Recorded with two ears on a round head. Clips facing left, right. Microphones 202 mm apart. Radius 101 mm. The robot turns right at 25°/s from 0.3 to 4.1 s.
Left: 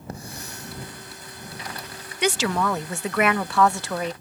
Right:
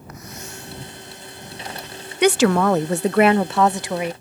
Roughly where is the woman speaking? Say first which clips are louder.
Right 8 dB; ahead right.